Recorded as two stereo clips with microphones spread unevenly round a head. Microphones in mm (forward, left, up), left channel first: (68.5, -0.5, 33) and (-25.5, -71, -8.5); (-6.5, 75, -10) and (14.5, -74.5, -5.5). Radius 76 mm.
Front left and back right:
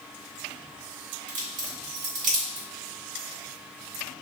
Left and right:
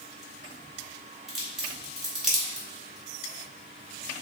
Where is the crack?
165° right, 1.3 m.